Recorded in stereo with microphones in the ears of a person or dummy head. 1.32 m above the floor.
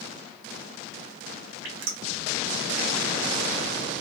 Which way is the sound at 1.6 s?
65° right (ahead or behind).